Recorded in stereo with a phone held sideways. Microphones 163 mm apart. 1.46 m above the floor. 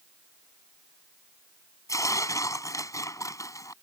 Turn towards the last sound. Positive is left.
turn(degrees=20)  # may be behind; listen again after turning